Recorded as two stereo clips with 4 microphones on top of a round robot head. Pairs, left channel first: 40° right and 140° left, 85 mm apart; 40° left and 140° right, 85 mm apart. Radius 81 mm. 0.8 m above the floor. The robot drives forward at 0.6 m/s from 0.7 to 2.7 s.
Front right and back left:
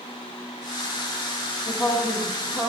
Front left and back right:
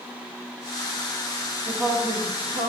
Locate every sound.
1.7 s a woman speaking: 85° right, 1.4 m; by 2.7 s 110° right, 1.5 m